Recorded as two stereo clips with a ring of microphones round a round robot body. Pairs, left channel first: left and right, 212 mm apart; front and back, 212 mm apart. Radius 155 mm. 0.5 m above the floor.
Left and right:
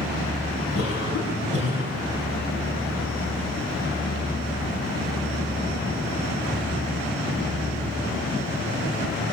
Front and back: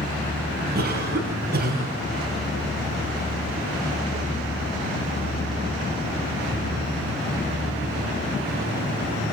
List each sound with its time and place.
0.8 s a cough: 140° left, 6 m